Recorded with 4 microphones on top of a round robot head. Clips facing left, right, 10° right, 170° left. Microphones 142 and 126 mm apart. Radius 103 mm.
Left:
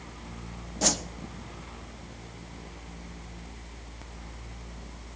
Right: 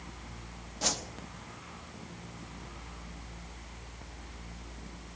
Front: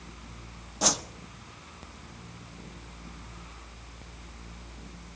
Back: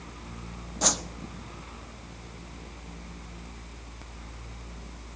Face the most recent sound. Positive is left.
turn(degrees=75)